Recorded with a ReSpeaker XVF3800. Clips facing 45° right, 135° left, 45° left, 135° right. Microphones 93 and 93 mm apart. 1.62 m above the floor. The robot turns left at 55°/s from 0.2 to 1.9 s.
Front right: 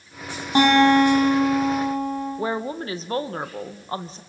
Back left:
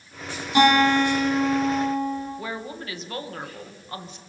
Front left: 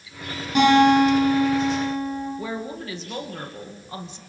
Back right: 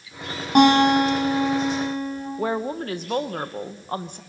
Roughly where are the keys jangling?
I don't hear keys jangling.